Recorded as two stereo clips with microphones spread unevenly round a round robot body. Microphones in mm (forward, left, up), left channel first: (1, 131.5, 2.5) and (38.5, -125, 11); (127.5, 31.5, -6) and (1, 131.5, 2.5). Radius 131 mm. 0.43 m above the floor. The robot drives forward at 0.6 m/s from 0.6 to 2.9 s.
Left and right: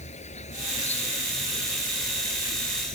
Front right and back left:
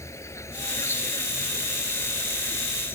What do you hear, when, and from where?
0.0 s an insect: 35° left; by 3.0 s 40° left